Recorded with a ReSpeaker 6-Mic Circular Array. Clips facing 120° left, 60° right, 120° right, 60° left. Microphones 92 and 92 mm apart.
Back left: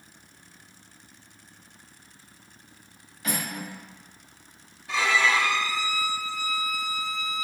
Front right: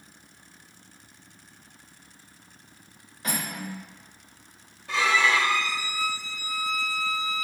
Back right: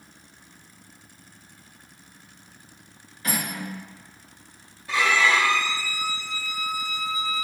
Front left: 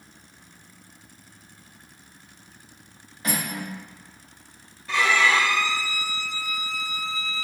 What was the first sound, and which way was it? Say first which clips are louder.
Cutlery clinking: even, front left 1 dB; 5° right.